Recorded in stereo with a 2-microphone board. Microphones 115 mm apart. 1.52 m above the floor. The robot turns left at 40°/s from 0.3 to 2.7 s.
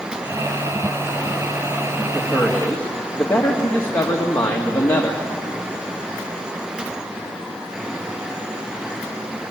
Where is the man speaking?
5° right (ahead or behind), 2 m; by 5.2 s 15° left (ahead or behind), 2 m.